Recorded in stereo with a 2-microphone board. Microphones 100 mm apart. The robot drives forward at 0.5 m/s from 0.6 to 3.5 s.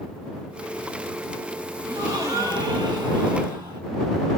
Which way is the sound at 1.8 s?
30° right (ahead or behind).